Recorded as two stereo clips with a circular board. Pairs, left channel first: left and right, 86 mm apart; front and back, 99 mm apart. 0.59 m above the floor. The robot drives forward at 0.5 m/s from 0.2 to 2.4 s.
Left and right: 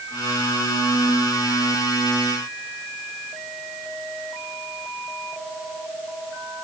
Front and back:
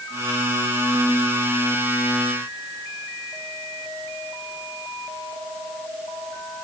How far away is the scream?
No scream in this recording.